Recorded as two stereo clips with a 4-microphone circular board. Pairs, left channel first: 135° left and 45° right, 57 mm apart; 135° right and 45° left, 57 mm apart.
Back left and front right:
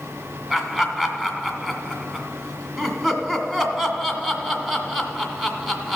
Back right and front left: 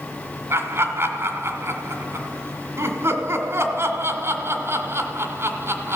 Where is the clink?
I don't hear a clink.